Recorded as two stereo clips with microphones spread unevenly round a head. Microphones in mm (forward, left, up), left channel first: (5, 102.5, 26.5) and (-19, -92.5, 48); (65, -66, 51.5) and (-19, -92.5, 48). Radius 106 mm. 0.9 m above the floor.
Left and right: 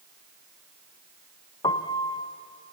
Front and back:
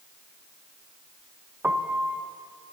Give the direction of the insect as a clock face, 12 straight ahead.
I don't hear an insect.